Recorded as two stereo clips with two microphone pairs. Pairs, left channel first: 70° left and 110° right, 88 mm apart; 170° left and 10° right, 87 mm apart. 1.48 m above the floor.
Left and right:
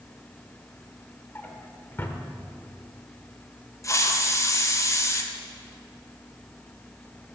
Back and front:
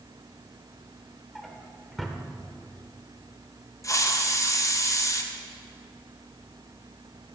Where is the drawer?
85° left, 1.2 m.